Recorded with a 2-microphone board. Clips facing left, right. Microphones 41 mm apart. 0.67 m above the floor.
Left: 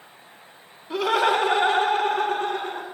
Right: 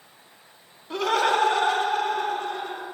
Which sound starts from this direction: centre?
Laughter, at 0.9 s.